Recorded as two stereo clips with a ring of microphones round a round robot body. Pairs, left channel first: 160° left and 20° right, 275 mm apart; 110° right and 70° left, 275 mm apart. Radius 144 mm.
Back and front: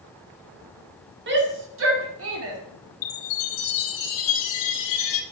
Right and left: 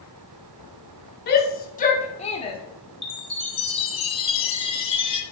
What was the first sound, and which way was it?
A shout, 65° right.